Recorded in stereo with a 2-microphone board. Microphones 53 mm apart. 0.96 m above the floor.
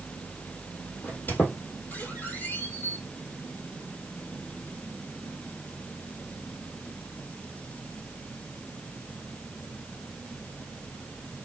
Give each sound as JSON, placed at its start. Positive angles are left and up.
{"t": 1.0, "sound": "a squeak", "side_deg": 35, "distance_m": 1.8}